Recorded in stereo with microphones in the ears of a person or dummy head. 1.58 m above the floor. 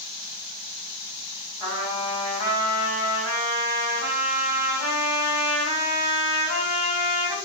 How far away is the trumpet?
About 1.4 m.